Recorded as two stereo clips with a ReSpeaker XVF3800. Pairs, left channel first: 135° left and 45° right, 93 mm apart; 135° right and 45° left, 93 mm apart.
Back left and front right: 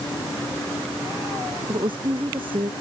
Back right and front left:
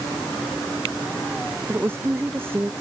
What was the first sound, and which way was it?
A woman speaking, 20° right.